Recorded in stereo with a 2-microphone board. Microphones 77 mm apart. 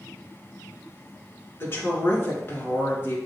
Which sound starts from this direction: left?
A woman speaking, at 1.6 s.